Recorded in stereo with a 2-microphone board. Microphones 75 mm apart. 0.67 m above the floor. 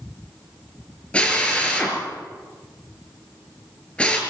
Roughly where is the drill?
Centre.